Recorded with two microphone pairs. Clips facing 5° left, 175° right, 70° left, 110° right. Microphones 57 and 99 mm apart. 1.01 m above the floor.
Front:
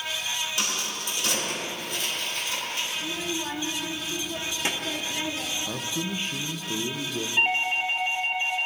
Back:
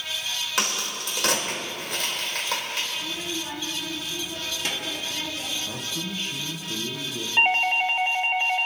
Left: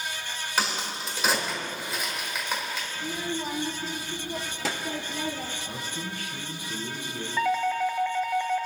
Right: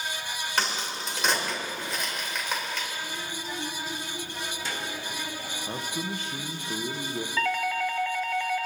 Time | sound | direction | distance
0.6 | a crack | 155° left | 3.5 m
3.0 | a child speaking | 75° left | 1.7 m
5.7 | a man speaking | 55° right | 0.9 m
7.4 | a doorbell | 140° left | 0.9 m